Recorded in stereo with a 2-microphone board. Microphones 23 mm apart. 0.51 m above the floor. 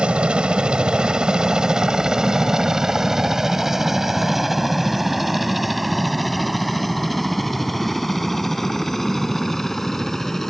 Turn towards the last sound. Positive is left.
turn(degrees=20)  # may be behind; listen again after turning